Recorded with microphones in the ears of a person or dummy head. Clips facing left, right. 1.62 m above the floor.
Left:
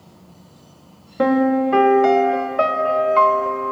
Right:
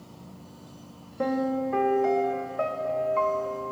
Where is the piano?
75° left (ahead or behind), 0.7 m.